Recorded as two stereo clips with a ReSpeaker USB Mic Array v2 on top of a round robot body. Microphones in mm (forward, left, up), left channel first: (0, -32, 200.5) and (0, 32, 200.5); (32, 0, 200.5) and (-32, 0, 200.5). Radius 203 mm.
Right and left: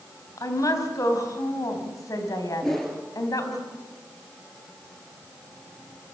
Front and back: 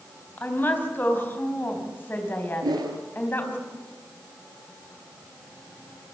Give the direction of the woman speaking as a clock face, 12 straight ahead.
2 o'clock.